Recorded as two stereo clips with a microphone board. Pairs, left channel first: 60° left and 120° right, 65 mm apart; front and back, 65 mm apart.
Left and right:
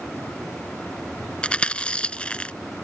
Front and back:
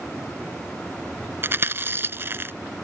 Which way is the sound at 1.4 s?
130° left.